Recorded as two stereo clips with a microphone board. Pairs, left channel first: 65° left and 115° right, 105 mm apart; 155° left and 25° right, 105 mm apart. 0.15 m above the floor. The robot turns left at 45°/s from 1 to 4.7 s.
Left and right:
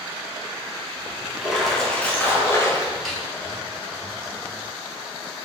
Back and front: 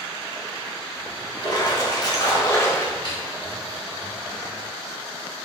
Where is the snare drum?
155° left, 1.3 m; by 3.2 s 150° left, 1.3 m.